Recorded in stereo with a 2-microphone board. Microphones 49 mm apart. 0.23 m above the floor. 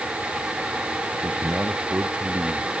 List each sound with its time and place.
1.2 s a man speaking: 40° right (ahead or behind)